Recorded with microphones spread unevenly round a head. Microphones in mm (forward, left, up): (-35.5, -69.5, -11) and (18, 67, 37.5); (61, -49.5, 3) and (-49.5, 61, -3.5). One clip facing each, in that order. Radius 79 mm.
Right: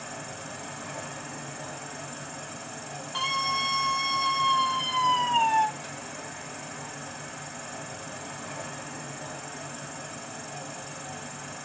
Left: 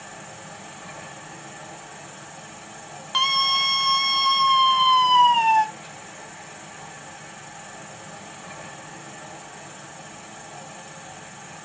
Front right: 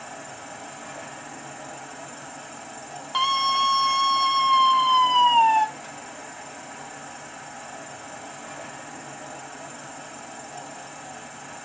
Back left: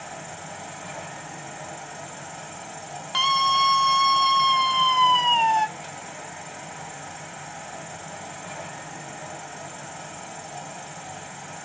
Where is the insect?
145° right, 2.5 m.